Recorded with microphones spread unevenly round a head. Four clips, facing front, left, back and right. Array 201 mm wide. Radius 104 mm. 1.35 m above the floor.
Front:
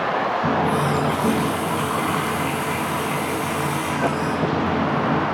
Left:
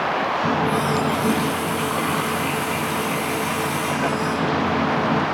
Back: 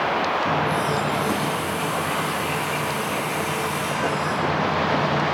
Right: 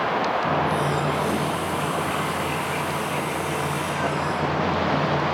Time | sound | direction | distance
0.4 | a running tap | 35° left | 8.5 m